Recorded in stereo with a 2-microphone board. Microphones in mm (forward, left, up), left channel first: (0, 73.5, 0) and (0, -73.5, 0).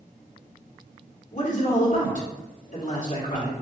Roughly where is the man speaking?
Left.